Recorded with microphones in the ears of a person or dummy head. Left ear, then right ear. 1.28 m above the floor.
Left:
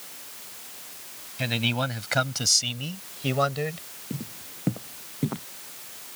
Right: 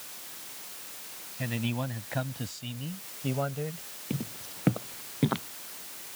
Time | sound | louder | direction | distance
1.4 | a man speaking | left 8 dB | 75° left (ahead or behind) | ?
4.1 | footsteps | right 1 dB | 70° right (ahead or behind) | ?